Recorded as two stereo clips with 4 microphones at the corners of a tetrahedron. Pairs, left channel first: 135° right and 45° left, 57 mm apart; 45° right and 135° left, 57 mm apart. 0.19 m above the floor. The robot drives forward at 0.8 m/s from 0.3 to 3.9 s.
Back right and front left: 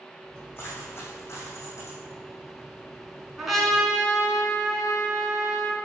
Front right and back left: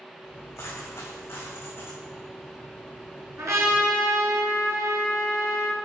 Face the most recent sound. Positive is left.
turn(degrees=135)